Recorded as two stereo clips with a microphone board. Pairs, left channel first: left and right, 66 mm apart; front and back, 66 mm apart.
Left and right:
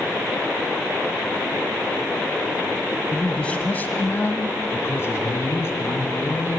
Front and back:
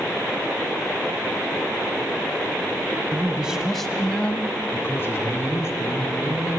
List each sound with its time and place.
3.1 s a man speaking: 160° left, 1.4 m; by 6.6 s 40° left, 4.5 m